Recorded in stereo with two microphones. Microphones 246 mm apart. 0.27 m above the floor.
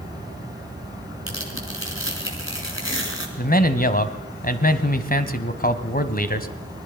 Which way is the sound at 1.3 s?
55° left (ahead or behind).